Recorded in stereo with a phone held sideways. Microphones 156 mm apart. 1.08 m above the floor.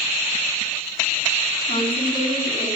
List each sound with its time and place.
1.7 s a woman speaking: 45° left (ahead or behind), 8 m